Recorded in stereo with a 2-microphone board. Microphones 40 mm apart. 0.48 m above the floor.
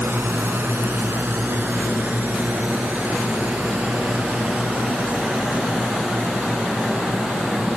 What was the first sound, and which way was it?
A drone, 75° right (ahead or behind).